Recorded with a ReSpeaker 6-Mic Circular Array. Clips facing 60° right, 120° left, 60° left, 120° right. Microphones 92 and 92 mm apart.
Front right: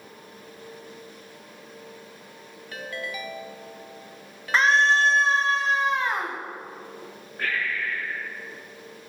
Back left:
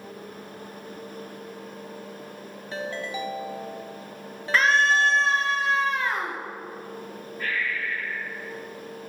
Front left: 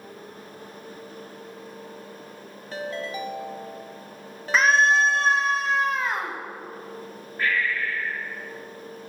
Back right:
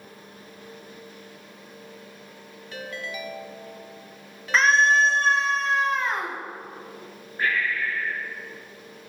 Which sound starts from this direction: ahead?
A scream, at 4.5 s.